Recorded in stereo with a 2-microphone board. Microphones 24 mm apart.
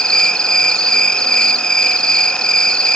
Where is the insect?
30° left (ahead or behind), 0.7 m.